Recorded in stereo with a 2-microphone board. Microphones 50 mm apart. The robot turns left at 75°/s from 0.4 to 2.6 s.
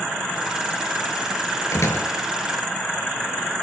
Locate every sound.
1.7 s a door slam: 75° left (ahead or behind), 4.5 m; by 2.1 s 55° left (ahead or behind), 4.5 m